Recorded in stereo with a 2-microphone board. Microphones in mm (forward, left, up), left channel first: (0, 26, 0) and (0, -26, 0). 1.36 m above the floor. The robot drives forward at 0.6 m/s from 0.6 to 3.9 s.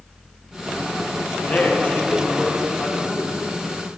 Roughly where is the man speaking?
Left.